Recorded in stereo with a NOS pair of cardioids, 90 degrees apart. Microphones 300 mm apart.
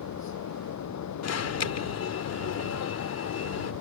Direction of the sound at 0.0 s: 65° left.